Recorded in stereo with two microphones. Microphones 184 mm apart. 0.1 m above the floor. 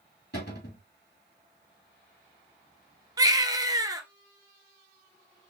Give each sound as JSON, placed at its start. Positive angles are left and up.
{"t": 0.3, "sound": "a cupboard door", "side_deg": 65, "distance_m": 3.0}
{"t": 3.2, "sound": "a baby crying", "side_deg": -20, "distance_m": 0.7}